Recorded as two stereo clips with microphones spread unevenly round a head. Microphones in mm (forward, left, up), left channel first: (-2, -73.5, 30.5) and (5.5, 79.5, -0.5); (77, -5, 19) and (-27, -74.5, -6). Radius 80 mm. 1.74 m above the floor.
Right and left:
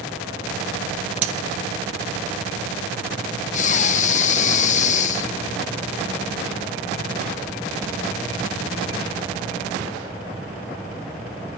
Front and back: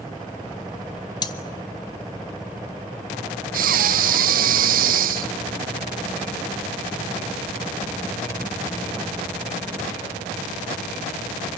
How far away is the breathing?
About 0.7 m.